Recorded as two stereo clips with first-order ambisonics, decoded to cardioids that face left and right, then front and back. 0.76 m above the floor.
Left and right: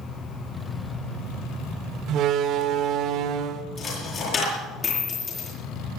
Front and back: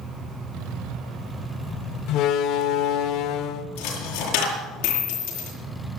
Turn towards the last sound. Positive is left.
turn(degrees=25)